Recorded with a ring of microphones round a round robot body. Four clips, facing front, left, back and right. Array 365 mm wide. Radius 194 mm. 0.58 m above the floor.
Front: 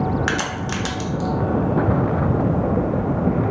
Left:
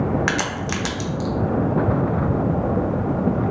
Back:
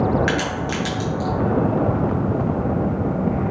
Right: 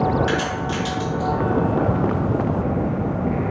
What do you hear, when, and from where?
0.3 s a crack: 75° left, 0.7 m